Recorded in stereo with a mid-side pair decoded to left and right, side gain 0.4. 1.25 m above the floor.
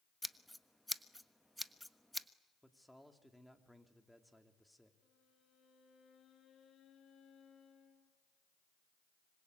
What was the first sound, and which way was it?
Scissors, straight ahead.